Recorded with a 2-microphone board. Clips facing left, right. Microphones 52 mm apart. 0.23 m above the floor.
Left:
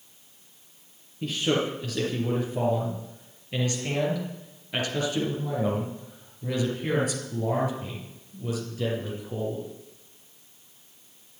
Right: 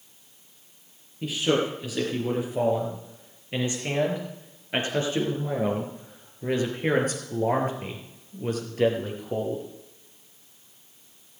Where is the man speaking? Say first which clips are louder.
Right 2 dB; 5° right (ahead or behind), 4.5 m; by 9.6 s 55° right (ahead or behind), 5 m.